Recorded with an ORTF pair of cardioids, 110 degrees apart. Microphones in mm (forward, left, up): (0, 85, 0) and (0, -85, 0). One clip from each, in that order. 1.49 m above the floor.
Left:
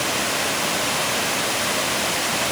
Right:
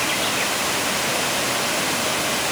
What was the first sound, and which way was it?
Only background noise.